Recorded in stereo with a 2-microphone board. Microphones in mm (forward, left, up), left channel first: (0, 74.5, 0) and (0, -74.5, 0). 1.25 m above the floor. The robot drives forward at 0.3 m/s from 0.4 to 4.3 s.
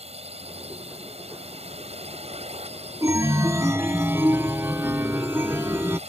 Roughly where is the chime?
Right.